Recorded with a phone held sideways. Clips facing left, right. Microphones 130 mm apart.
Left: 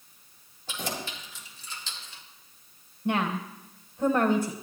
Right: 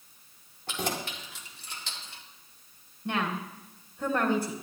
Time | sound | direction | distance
0.7 | keys jangling | 65° right (ahead or behind) | 2.5 m
3.0 | a woman speaking | 20° left (ahead or behind) | 1.1 m